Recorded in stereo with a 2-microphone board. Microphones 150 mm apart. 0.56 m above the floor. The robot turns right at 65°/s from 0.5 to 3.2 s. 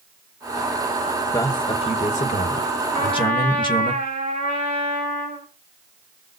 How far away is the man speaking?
About 2.5 m.